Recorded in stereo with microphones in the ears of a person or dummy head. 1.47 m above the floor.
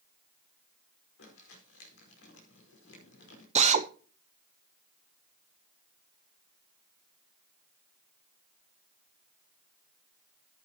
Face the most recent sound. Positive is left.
turn(degrees=-30)  # may be behind; listen again after turning